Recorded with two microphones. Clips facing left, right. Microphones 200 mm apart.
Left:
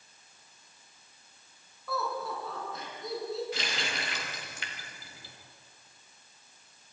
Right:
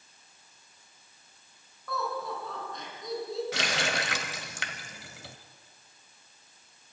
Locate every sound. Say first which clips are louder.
1.9 s laughter: even; 5° left (ahead or behind), 6.5 m; by 3.4 s centre (ahead or behind), 7 m
3.5 s a running tap: right 5 dB; 75° right (ahead or behind), 1.5 m